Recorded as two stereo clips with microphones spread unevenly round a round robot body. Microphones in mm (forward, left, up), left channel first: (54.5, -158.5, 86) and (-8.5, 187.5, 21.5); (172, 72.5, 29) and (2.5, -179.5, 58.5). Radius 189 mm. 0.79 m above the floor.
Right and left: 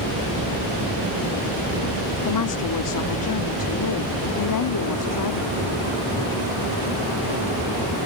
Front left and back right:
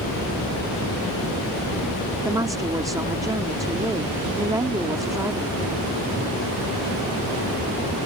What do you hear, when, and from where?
2.2 s a woman speaking: 40° right